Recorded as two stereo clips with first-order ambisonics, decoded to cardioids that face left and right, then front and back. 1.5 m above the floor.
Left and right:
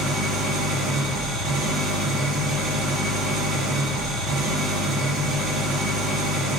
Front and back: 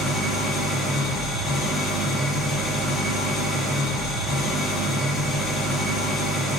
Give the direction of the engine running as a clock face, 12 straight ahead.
2 o'clock.